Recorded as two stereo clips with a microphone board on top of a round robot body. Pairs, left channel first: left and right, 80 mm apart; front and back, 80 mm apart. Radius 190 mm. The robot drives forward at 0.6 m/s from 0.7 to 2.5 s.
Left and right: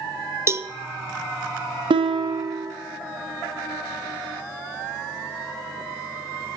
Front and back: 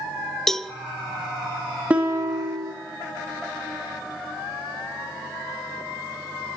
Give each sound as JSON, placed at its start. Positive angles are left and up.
{"t": 0.5, "sound": "a cowbell", "azimuth_deg": -80, "distance_m": 0.8}
{"t": 1.9, "sound": "a guitar", "azimuth_deg": -105, "distance_m": 0.6}